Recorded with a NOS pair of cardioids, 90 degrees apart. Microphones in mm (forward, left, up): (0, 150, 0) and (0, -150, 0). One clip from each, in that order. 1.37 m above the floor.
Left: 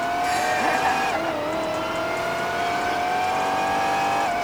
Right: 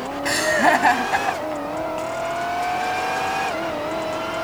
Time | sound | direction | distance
0.2 | laughter | 60° right | ?